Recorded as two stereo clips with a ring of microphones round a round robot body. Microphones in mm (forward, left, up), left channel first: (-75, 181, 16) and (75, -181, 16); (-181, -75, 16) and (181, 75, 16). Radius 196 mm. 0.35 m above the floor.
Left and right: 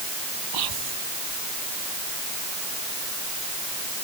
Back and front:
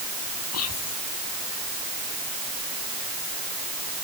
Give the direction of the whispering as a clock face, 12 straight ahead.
3 o'clock.